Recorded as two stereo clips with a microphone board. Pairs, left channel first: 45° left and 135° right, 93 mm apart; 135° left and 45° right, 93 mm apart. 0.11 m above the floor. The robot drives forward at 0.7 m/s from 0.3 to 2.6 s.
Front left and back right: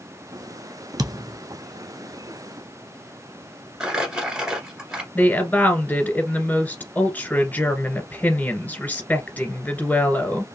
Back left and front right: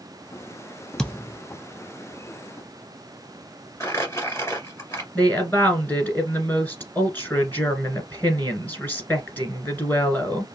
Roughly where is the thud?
Behind right.